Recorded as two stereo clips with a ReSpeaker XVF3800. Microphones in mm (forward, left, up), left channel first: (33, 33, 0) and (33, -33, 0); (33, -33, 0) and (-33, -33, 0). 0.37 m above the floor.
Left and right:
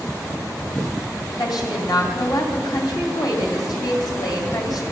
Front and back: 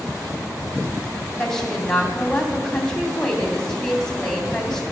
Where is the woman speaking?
80° left, 2.5 m.